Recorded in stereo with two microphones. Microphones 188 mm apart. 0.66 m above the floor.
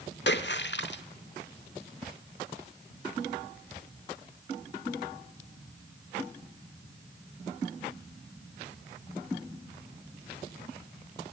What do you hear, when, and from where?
0.3 s a splash: 70° left (ahead or behind), 1.0 m